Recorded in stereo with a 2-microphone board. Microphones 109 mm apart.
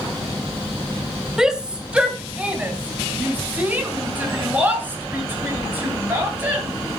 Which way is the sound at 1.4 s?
5° right (ahead or behind).